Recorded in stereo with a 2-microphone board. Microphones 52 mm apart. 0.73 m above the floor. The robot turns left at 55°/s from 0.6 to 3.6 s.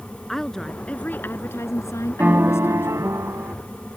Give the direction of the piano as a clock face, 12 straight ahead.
1 o'clock.